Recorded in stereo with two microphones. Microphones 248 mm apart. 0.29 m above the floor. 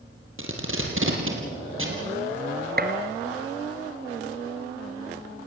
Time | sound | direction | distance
0.4 | tape being pulled | 60° right (ahead or behind) | 3.5 m
2.8 | a gunshot | 40° right (ahead or behind) | 1.9 m